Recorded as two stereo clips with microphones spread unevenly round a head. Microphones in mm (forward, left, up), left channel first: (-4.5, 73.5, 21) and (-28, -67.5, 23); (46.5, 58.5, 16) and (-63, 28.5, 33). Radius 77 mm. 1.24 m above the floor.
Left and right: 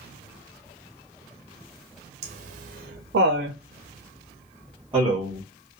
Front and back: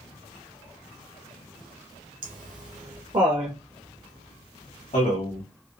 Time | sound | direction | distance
2.2 | laughter | 140° right | 0.9 m